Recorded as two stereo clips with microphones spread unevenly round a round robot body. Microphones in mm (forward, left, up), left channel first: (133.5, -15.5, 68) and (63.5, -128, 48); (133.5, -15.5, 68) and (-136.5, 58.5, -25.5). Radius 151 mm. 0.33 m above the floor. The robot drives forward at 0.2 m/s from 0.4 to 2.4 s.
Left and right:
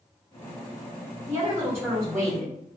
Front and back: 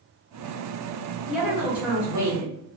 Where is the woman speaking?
150° right, 1.0 m; by 2.5 s 160° right, 1.1 m.